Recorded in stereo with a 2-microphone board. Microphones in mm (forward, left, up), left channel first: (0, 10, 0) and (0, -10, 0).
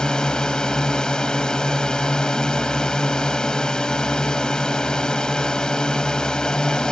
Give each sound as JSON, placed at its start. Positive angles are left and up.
{"t": 0.0, "sound": "a drone", "side_deg": 45}